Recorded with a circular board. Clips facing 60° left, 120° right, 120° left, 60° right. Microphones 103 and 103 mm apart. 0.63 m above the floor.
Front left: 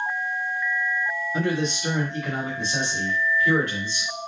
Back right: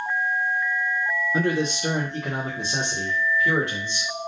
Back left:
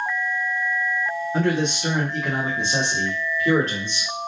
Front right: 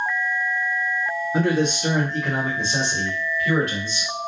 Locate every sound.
1.3 s a man speaking: 120° right, 1.0 m; by 4.1 s 170° left, 2 m